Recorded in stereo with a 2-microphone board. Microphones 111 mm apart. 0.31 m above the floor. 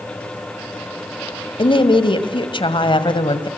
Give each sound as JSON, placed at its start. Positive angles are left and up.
{"t": 1.6, "sound": "a woman speaking", "side_deg": 50, "distance_m": 1.9}